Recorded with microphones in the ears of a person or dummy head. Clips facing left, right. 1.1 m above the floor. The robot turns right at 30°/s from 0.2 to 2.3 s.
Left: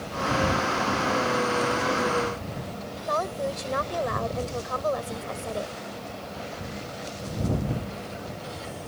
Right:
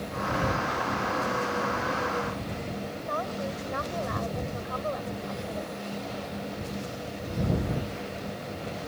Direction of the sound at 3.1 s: 50° left (ahead or behind).